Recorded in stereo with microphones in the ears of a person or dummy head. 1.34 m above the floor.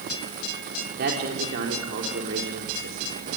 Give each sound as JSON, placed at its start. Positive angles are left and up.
{"t": 1.0, "sound": "a man speaking", "side_deg": -55, "distance_m": 4.0}